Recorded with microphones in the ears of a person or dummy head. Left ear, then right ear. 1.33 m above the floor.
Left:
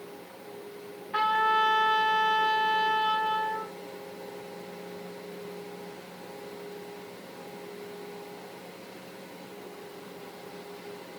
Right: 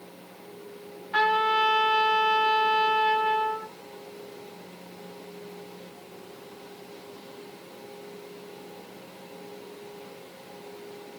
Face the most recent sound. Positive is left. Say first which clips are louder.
# right 2 dB
turn(degrees=-20)  # may be behind; listen again after turning